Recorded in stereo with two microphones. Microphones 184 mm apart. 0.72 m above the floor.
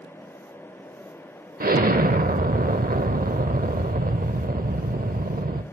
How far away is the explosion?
About 0.7 m.